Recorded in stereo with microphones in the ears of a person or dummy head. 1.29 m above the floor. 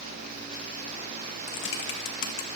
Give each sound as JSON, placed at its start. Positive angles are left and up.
{"t": 1.5, "sound": "typing on a keyboard", "side_deg": 75, "distance_m": 1.3}